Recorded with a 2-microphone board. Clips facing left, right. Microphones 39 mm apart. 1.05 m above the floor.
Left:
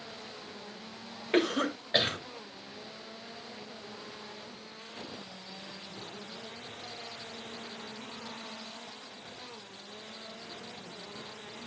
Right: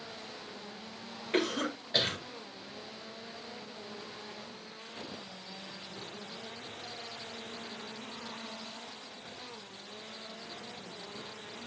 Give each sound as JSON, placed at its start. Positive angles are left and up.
{"t": 1.3, "sound": "a cough", "side_deg": 30, "distance_m": 2.5}